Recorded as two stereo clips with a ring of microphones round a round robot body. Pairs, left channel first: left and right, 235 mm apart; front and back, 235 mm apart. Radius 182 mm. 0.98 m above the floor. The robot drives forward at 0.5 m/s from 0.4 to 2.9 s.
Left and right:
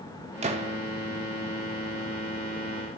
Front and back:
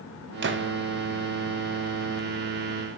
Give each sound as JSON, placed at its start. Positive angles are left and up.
{"t": 0.4, "sound": "a gunshot", "azimuth_deg": -150, "distance_m": 1.5}